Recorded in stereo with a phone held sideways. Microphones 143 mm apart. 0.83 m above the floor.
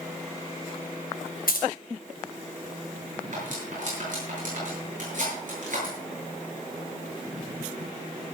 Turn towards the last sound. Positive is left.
turn(degrees=-65)  # may be behind; listen again after turning